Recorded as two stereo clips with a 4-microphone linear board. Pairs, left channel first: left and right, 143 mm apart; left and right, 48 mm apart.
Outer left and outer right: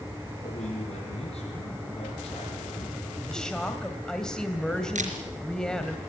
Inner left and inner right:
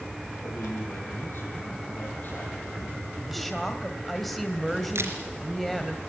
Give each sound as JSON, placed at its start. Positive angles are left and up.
{"t": 0.4, "sound": "a man speaking", "side_deg": 55, "distance_m": 5.0}
{"t": 3.3, "sound": "a woman speaking", "side_deg": 5, "distance_m": 2.0}
{"t": 5.0, "sound": "a camera shutter", "side_deg": -65, "distance_m": 3.5}